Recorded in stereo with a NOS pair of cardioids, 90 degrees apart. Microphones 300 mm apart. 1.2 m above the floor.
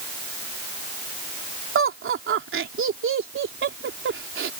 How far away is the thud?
I don't hear a thud.